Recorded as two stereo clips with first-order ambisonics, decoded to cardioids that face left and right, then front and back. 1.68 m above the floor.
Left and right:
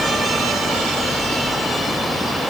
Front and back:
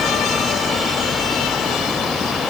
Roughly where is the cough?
I don't hear a cough.